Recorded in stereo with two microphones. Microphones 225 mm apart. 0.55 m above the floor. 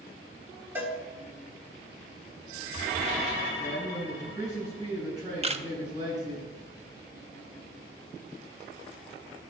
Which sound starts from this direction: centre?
A cowbell, at 0.8 s.